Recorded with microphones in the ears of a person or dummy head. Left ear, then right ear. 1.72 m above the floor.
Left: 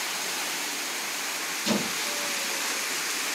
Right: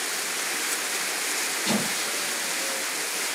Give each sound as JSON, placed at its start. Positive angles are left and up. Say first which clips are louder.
{"t": 1.6, "sound": "a squeak", "louder": "right 1 dB", "side_deg": 35, "distance_m": 2.5}